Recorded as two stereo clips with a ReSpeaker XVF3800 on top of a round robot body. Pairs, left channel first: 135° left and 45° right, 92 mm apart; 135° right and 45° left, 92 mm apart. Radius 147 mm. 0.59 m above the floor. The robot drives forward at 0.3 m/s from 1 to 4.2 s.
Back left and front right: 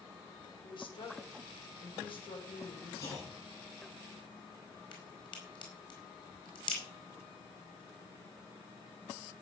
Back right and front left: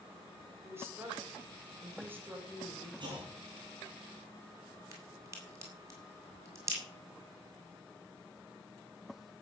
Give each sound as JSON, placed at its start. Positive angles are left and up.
{"t": 0.6, "sound": "a woman speaking", "azimuth_deg": 110, "distance_m": 3.5}
{"t": 3.0, "sound": "a clunk", "azimuth_deg": 85, "distance_m": 8.5}
{"t": 4.9, "sound": "a crack", "azimuth_deg": 105, "distance_m": 5.0}